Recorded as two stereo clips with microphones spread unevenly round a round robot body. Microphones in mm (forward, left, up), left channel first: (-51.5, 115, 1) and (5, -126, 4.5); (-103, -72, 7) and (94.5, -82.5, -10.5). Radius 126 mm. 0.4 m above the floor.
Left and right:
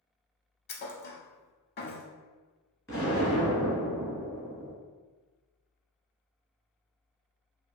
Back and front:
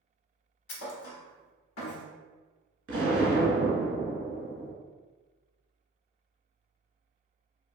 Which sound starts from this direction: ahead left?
An explosion, at 2.9 s.